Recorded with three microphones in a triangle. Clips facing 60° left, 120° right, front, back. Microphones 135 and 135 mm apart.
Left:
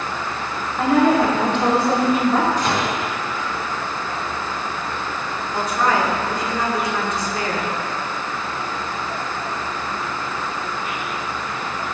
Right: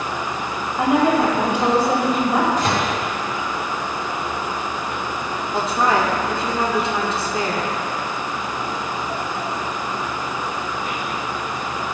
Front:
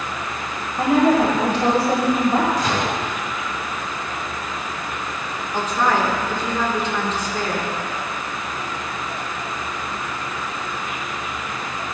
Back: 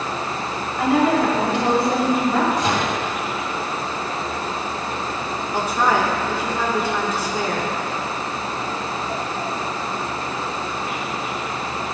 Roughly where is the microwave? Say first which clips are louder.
Right 1 dB, back 1 dB; behind right.